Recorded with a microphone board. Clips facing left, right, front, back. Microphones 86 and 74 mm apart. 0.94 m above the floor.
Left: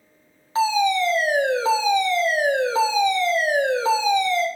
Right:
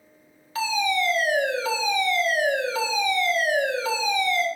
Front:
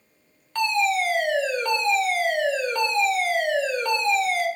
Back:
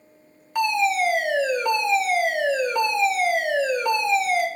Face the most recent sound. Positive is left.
turn(degrees=115)